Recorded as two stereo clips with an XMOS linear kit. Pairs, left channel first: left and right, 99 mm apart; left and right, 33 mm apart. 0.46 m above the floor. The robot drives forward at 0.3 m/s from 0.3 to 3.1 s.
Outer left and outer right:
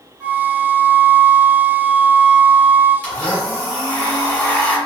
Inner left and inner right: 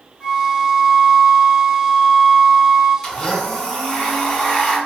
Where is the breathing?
I don't hear breathing.